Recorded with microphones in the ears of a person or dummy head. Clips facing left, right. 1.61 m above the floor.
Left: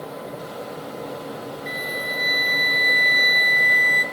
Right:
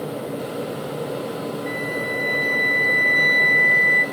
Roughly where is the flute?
Left.